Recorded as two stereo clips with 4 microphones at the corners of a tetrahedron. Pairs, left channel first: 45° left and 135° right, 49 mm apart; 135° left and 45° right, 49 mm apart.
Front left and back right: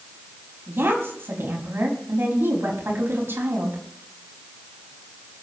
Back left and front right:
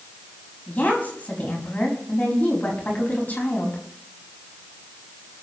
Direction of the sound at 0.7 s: 170° right.